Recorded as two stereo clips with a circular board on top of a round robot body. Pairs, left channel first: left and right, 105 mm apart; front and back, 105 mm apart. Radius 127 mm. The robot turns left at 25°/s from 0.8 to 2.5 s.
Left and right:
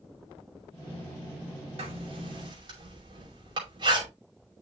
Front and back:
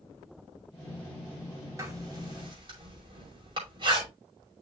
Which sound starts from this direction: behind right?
Writing, at 1.8 s.